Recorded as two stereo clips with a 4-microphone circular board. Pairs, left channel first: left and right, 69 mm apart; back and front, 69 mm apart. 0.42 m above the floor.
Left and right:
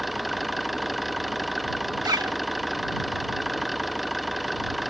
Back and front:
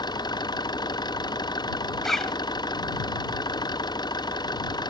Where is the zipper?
95° right.